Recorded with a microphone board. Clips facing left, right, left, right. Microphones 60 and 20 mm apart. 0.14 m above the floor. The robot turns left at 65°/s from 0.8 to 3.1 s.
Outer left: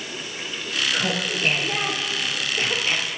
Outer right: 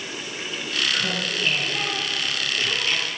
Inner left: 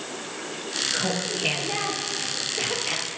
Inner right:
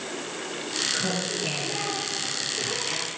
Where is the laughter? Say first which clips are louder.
Outer left 1 dB, inner left 1 dB; 155° left, 3.5 m; by 3.2 s 15° left, 3.5 m.